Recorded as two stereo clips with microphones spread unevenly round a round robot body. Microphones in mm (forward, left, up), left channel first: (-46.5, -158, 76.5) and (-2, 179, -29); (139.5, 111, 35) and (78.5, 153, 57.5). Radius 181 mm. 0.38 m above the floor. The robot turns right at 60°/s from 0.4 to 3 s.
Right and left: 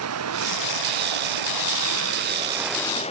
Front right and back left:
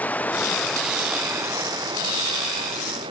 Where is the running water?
35° left; by 3.1 s 170° right.